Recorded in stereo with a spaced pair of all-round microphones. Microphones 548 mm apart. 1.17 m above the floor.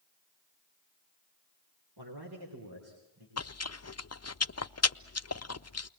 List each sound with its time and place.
2.0 s a man speaking: 45° right (ahead or behind), 3.5 m; by 3.3 s 40° right (ahead or behind), 5.5 m
3.4 s chewing: 30° left (ahead or behind), 0.5 m